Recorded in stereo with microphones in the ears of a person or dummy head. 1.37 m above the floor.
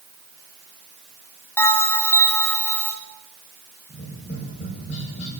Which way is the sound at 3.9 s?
35° left (ahead or behind).